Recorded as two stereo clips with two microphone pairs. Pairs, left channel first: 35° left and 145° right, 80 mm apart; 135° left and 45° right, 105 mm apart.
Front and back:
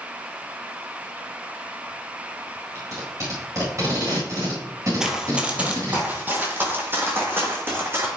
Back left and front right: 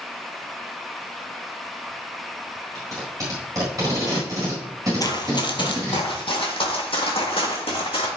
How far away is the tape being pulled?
About 4.5 m.